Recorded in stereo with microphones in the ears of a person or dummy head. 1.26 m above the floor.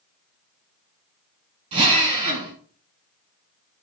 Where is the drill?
35° right (ahead or behind), 8 m.